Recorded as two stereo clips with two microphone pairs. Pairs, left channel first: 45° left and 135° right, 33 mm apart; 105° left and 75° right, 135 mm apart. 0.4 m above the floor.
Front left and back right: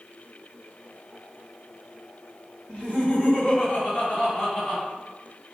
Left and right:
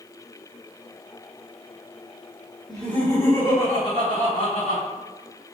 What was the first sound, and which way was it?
Laughter, 15° left.